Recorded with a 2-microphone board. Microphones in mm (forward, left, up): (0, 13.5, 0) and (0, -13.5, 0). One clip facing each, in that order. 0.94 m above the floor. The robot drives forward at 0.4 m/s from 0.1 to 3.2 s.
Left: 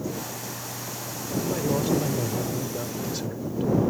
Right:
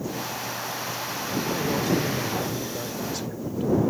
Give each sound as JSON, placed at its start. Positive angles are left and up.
{"t": 1.4, "sound": "a man speaking", "side_deg": 5}